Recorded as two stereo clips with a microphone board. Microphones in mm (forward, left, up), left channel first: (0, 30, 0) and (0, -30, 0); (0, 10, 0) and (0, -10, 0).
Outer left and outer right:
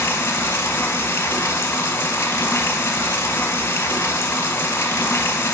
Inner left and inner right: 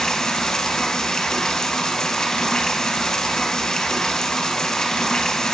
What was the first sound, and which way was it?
Running water, 50° left (ahead or behind).